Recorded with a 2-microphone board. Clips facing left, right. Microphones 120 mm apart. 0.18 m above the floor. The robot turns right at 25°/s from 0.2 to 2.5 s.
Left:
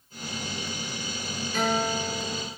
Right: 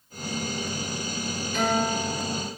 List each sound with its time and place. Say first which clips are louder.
1.5 s a guitar: right 1 dB; 35° left (ahead or behind), 1.6 m; by 2.5 s 45° left (ahead or behind), 1.6 m